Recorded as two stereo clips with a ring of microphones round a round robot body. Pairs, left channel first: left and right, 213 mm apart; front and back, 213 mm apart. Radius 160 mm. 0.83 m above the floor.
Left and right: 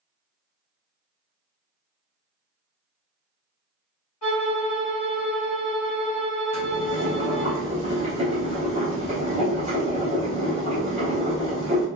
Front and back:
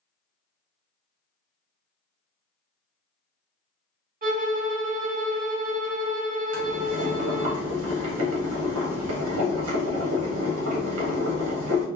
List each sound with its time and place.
4.2 s a violin: 135° left, 0.9 m
6.5 s boiling: 160° right, 0.7 m